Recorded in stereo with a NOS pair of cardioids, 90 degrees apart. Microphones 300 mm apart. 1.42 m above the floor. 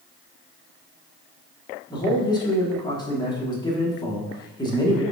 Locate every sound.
1.9 s a man speaking: 15° left, 1.4 m